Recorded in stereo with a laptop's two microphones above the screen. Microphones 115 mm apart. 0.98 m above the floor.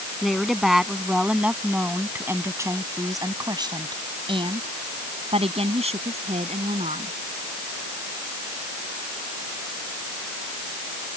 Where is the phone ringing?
I don't hear a phone ringing.